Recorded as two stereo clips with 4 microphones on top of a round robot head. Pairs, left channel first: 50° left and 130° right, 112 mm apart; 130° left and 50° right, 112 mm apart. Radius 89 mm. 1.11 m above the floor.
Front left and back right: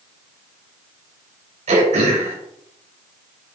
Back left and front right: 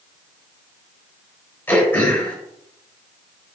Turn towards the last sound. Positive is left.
turn(degrees=-150)